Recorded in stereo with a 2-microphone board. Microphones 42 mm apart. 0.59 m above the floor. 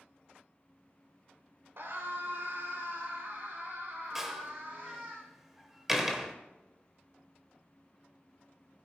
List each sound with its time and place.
1.8 s a scream: 70° right (ahead or behind), 1.8 m; by 5.2 s 45° right (ahead or behind), 3 m
4.2 s a door slam: 10° right (ahead or behind), 1.5 m